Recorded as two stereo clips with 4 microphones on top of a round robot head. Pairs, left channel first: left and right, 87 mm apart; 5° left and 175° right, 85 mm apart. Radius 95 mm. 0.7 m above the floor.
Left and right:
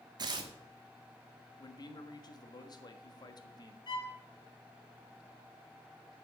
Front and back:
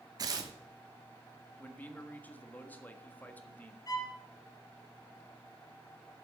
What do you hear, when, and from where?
0.2 s tearing paper: 130° right, 1.2 m
1.6 s a man speaking: 75° left, 1.5 m
3.9 s a violin: 50° left, 6 m